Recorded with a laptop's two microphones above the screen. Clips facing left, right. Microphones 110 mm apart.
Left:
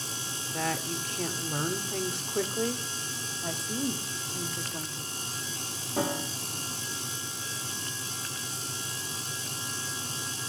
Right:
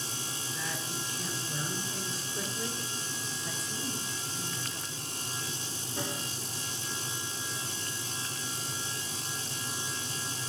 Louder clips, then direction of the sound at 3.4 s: Left 9 dB; 60° left (ahead or behind).